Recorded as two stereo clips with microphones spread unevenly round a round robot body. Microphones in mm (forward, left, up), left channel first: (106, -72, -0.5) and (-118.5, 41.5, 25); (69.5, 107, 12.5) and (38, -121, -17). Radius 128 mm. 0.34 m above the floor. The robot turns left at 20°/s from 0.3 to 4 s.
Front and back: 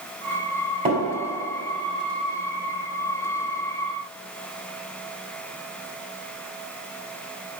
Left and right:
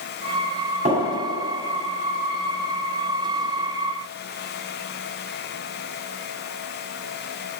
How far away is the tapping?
About 2.5 m.